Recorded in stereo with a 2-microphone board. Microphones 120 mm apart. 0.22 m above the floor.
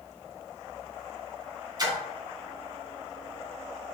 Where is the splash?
35° right (ahead or behind), 1.0 m.